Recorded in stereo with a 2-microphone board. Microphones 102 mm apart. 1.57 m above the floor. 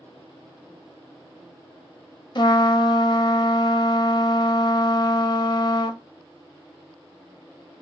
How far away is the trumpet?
About 0.6 m.